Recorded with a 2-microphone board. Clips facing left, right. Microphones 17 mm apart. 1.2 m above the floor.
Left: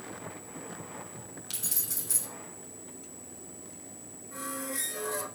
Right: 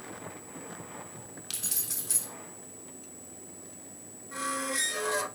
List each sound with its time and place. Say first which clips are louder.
1.5 s keys jangling: right 1 dB; 20° right (ahead or behind), 2.5 m
4.3 s a squeak: right 5 dB; 35° right (ahead or behind), 0.5 m